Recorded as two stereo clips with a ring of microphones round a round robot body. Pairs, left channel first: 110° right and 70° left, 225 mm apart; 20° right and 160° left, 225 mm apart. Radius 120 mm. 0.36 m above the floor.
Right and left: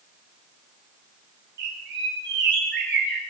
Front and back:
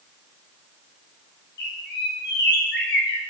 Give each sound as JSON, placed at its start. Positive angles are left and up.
{"t": 1.6, "sound": "a bird", "azimuth_deg": 25, "distance_m": 8.0}